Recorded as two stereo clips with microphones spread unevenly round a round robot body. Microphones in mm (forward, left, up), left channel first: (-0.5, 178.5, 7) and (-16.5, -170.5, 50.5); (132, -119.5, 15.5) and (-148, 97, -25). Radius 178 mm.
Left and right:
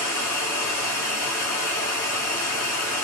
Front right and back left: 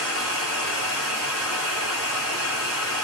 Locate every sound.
0.0 s running water: 145° left, 1.8 m